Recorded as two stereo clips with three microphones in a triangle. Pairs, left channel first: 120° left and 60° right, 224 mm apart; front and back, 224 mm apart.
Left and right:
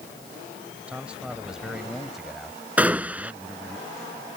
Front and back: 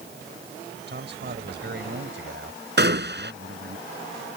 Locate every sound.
0.9 s a man speaking: 145° right; by 3.8 s 150° right
2.8 s a gunshot: 145° right